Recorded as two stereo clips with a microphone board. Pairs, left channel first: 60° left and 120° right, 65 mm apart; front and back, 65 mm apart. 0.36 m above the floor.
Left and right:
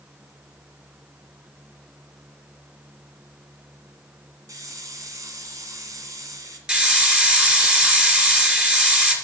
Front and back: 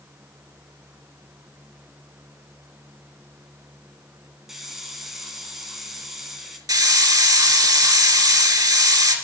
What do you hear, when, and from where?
4.5 s a hiss: 95° right, 2 m
6.7 s a hiss: 165° left, 2.5 m